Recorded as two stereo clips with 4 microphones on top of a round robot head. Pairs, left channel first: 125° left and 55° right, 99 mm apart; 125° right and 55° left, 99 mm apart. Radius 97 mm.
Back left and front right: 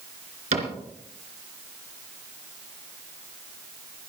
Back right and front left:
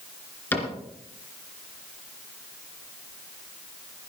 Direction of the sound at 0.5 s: 50° right.